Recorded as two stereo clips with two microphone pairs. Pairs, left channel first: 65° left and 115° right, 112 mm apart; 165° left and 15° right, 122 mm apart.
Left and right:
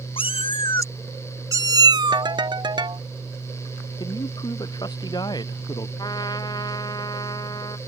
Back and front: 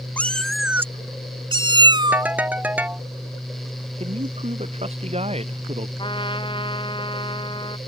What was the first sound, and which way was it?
A cat meowing, 85° left.